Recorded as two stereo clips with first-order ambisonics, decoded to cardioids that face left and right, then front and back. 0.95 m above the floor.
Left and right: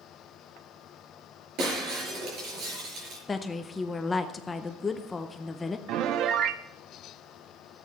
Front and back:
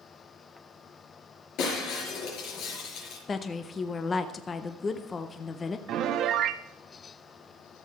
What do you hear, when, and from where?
1.6 s breaking glass: 45° right, 5 m
3.3 s a woman speaking: 35° left, 0.6 m
5.9 s a piano: 135° right, 0.6 m